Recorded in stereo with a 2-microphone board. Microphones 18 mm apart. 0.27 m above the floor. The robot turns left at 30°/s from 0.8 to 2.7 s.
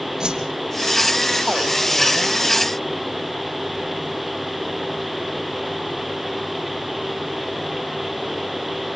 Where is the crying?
I don't hear crying.